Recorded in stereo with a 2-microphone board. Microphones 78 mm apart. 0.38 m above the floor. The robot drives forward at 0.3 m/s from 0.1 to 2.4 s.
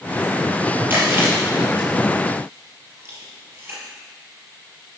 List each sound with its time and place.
0.9 s chewing: 25° right (ahead or behind), 4 m; by 3.8 s 30° right (ahead or behind), 3.5 m